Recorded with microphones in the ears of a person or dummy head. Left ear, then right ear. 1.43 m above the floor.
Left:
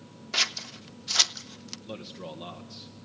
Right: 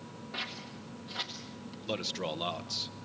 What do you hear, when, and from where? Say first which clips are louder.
0.3 s scissors: left 12 dB; 70° left (ahead or behind), 1.0 m
1.9 s a man speaking: right 8 dB; 40° right (ahead or behind), 1.5 m